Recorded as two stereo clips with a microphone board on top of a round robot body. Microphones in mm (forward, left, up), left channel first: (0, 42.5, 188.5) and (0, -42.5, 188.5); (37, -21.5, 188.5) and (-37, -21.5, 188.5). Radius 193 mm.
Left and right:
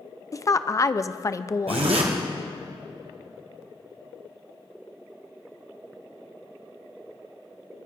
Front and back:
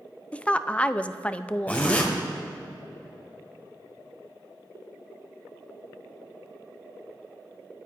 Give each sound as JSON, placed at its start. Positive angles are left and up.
{"t": 0.3, "sound": "a woman speaking", "azimuth_deg": 65, "distance_m": 0.6}
{"t": 1.7, "sound": "a zipper", "azimuth_deg": -70, "distance_m": 1.5}